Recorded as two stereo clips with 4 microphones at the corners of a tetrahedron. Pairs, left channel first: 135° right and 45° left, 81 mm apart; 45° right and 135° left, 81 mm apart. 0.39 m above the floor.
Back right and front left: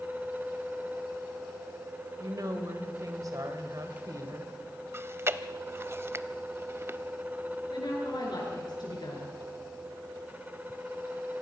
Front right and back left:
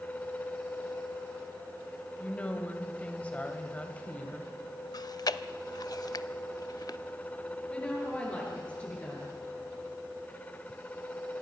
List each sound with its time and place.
2.2 s a woman speaking: 25° left, 2 m
4.9 s chewing: 10° right, 0.5 m
7.7 s a woman speaking: 120° right, 7 m